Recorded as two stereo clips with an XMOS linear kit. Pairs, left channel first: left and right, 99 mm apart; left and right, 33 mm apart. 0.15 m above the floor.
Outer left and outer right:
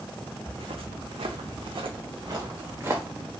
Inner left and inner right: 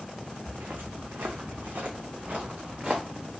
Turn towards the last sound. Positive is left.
turn(degrees=-25)  # may be behind; listen again after turning